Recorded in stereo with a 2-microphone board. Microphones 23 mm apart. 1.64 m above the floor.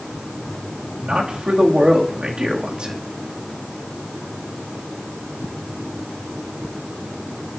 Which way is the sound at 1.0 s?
50° right (ahead or behind).